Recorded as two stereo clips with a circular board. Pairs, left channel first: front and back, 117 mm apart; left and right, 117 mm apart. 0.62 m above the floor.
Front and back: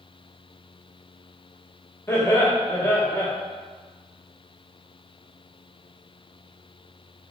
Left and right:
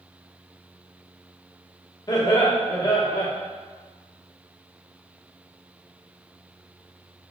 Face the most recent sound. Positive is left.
turn(degrees=60)